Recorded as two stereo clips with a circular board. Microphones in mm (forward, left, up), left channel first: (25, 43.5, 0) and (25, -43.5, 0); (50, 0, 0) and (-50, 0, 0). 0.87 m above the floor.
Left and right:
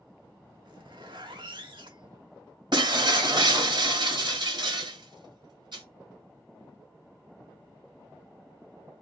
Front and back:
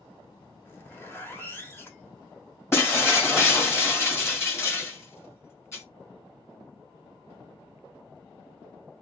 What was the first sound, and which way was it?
A zipper, 65° right.